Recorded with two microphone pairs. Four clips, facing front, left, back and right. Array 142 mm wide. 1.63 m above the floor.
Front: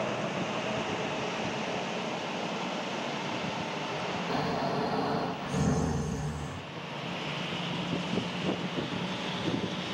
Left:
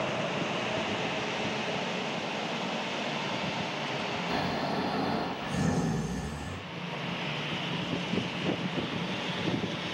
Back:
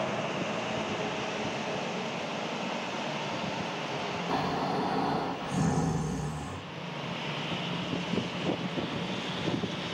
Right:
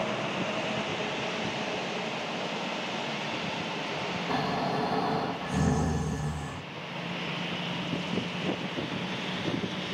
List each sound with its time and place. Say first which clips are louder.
4.3 s snoring: right 3 dB, back 1 dB; 110° right, 1.9 m